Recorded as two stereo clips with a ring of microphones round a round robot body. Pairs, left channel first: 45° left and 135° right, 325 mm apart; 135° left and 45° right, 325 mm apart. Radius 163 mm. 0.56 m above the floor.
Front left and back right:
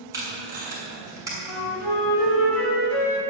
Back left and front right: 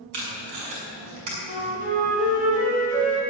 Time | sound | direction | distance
0.1 | tape being pulled | 55° right | 6 m
1.5 | a flute | 20° left | 3.5 m